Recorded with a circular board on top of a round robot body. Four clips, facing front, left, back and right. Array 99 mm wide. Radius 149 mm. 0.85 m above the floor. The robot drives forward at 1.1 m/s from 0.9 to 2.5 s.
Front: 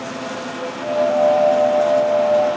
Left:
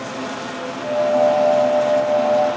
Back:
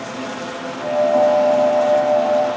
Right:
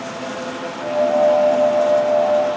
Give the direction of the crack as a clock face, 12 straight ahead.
I don't hear a crack.